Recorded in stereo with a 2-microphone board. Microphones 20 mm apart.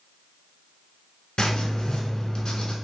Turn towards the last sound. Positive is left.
turn(degrees=45)  # may be behind; listen again after turning